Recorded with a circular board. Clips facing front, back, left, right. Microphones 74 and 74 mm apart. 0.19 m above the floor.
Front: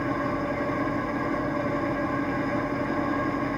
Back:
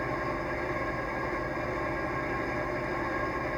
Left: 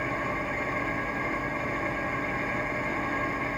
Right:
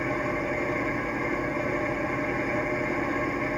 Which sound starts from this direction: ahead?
An engine running, at 0.0 s.